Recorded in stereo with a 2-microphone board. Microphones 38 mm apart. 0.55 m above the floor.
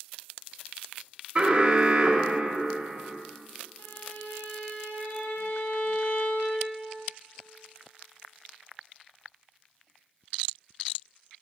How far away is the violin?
About 1.2 m.